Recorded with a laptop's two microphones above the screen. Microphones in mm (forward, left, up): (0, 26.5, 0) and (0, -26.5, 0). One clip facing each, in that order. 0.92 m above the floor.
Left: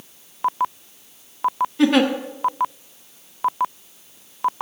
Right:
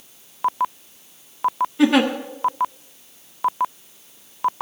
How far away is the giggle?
About 0.8 m.